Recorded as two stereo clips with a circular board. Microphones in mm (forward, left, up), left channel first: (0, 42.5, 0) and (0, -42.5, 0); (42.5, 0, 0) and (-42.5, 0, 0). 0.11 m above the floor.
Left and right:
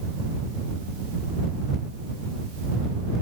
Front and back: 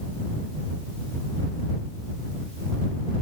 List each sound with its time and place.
Only background noise.